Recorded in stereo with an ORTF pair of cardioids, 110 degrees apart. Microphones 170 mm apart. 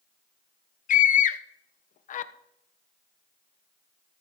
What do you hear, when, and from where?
0.9 s a scream: 50° left, 1.3 m